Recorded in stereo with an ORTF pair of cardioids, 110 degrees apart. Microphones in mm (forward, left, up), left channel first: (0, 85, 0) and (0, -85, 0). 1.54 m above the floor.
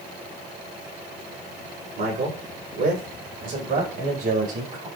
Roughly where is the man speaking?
Ahead right.